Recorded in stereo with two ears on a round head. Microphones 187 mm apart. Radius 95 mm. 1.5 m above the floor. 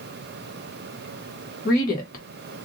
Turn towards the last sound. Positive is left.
turn(degrees=40)  # may be behind; listen again after turning